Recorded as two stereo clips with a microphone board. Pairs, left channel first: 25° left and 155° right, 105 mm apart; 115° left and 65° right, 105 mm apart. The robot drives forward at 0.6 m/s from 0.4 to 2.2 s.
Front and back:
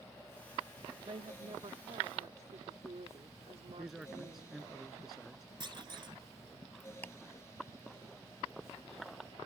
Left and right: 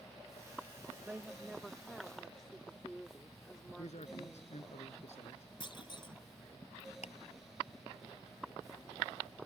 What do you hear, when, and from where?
1.1 s a woman speaking: 140° right; by 4.6 s 160° right
3.8 s a man speaking: 115° left
5.6 s a clunk: 155° left
7.0 s ticking: 100° left